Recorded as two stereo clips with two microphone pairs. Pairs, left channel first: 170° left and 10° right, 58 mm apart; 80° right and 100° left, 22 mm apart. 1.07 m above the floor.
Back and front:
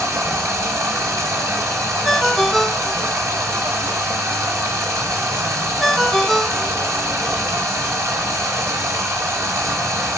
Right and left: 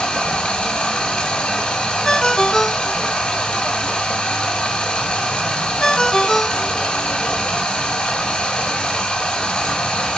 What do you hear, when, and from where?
0.0 s running water: 40° right, 2 m
2.0 s a ringtone: 100° right, 0.6 m